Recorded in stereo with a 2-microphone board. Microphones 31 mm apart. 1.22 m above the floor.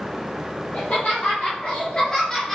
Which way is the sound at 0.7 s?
70° left (ahead or behind).